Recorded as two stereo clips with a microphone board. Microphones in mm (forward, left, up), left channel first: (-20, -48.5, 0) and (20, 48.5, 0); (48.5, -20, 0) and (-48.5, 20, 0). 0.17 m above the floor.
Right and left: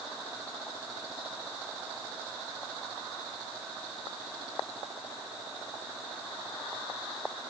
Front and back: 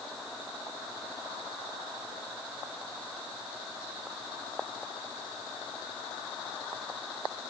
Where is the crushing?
I don't hear crushing.